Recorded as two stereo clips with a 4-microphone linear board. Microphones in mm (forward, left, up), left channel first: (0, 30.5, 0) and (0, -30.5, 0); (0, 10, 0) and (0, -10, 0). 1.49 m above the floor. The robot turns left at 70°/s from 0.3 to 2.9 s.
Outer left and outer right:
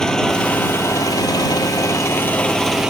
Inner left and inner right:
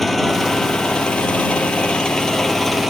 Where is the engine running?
170° left; by 2.9 s 10° right.